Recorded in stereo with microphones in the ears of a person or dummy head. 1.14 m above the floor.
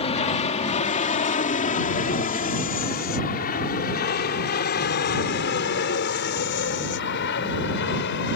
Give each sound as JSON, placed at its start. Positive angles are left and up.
{"t": 0.0, "sound": "an aircraft", "side_deg": 30}